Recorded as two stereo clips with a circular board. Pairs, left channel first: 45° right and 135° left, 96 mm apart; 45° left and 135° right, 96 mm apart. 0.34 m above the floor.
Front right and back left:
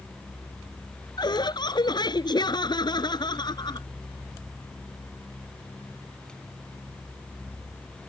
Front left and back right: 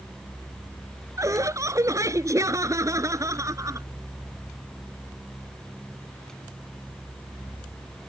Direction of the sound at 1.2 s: 80° right.